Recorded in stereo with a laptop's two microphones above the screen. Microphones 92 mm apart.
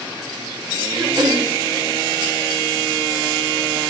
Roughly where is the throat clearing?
Right.